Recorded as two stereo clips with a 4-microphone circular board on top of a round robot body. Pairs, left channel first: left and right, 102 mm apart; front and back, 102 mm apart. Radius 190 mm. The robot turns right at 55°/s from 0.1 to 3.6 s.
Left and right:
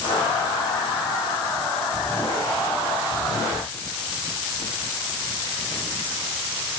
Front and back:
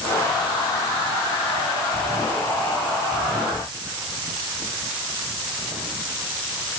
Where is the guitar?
No guitar in this recording.